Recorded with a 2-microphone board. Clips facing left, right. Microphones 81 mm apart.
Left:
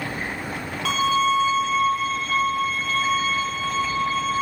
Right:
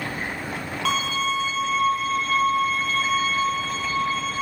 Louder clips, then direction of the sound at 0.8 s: Left 5 dB; 5° right (ahead or behind).